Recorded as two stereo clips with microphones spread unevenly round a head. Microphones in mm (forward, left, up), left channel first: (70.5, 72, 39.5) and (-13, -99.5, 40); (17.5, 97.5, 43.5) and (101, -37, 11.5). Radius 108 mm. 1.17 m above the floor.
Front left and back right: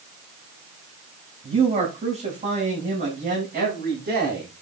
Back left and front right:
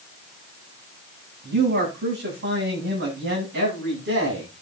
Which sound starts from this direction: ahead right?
A man speaking, at 1.4 s.